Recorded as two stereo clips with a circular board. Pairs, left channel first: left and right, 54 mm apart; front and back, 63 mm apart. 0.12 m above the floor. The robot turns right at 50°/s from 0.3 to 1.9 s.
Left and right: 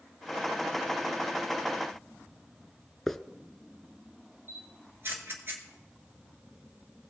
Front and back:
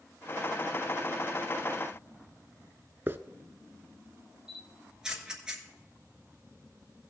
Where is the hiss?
170° left, 0.5 m.